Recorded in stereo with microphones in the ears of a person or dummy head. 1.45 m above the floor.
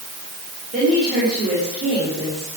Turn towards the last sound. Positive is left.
turn(degrees=-40)  # may be behind; listen again after turning